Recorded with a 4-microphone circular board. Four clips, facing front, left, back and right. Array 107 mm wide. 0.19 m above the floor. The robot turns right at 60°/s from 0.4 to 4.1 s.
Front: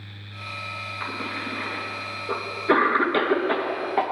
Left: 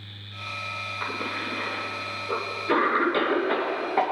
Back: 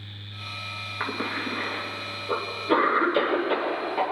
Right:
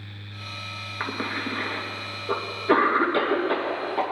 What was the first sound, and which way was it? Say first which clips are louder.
A cough: right 3 dB, back 3 dB; 125° right.